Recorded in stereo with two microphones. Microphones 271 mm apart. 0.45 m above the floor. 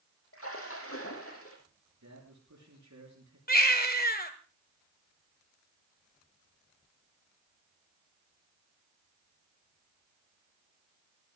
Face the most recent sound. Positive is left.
turn(degrees=35)  # may be behind; listen again after turning